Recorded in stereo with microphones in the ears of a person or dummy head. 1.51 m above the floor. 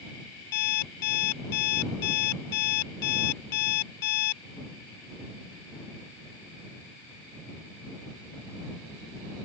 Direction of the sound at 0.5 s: 55° left (ahead or behind).